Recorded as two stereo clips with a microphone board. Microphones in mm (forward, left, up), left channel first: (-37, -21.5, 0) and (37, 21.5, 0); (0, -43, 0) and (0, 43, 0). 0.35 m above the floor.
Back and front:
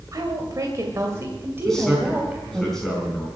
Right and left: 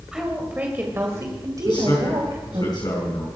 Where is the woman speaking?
10° left, 2.0 m; by 2.6 s 105° left, 2.5 m.